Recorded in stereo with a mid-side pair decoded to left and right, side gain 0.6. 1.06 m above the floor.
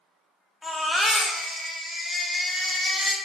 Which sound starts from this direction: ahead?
A baby crying, at 0.6 s.